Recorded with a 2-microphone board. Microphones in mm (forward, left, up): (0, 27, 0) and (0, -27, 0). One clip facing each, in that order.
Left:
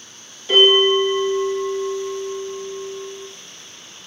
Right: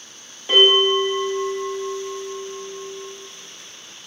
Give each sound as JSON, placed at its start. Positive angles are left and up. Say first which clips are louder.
{"t": 0.5, "sound": "a bell", "louder": "left 2 dB", "side_deg": -30, "distance_m": 1.6}